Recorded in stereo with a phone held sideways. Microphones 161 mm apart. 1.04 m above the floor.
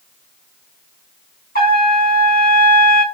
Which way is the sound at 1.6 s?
60° left (ahead or behind).